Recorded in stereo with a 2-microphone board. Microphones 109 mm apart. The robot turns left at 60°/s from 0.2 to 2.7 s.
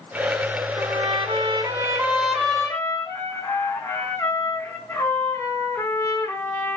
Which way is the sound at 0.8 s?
85° right.